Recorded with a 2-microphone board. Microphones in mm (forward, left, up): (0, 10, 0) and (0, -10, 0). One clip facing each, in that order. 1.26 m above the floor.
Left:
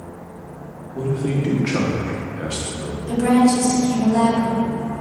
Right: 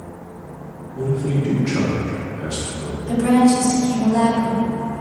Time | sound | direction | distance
0.9 | a man speaking | 80° left | 0.9 m
3.1 | a woman speaking | 15° left (ahead or behind) | 1.1 m